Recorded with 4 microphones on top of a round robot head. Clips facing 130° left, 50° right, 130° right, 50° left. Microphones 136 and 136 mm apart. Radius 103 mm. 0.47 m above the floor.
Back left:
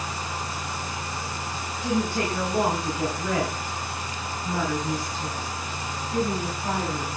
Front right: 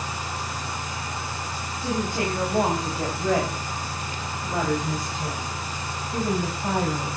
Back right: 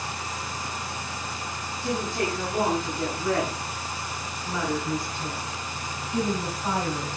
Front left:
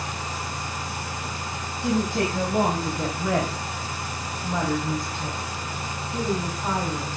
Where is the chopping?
I don't hear chopping.